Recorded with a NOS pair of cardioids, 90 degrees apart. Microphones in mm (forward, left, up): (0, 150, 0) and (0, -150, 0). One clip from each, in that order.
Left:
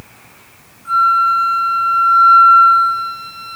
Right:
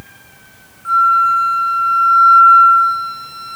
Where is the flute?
65° right, 3.5 m.